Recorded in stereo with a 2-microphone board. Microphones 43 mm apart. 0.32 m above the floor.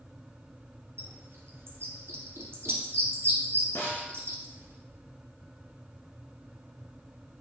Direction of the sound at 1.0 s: 70° right (ahead or behind).